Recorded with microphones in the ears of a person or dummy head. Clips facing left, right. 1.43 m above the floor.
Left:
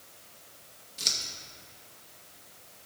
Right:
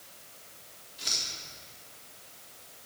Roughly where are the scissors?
Left.